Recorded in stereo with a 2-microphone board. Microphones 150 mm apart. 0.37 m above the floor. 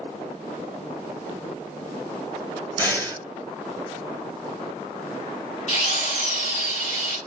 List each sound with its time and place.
2.8 s breathing: 15° left (ahead or behind), 1.9 m
5.7 s a drill: 55° left (ahead or behind), 1.0 m